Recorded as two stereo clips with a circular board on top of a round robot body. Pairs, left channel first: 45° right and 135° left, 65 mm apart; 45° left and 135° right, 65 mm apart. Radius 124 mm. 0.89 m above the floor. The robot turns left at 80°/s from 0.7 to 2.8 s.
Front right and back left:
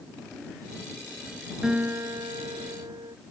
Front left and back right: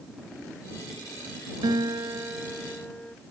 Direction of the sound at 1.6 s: 145° right.